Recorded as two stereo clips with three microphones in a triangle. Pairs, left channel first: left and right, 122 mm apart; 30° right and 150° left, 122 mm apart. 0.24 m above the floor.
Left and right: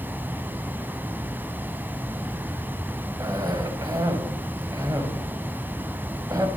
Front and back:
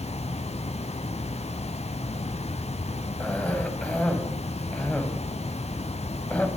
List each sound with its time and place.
0.0 s running water: 15° right, 0.8 m
3.2 s a cough: 100° right, 1.8 m